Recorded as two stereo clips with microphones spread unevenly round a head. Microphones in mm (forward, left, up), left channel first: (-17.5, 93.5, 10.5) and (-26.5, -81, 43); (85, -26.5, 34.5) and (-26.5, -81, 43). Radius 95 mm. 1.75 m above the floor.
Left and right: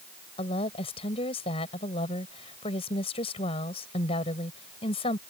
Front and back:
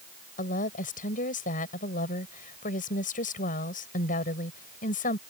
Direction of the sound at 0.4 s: 25° left.